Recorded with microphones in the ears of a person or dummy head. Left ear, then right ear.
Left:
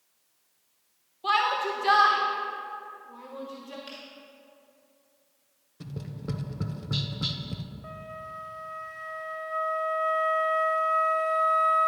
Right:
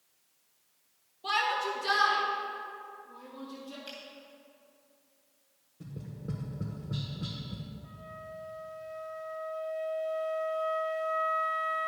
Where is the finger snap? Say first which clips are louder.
Left 1 dB; centre (ahead or behind), 2.5 m.